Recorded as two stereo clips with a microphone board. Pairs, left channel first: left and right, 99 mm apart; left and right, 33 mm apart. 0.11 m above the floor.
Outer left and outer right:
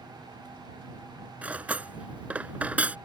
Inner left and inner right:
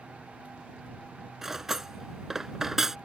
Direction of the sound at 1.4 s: 15° right (ahead or behind).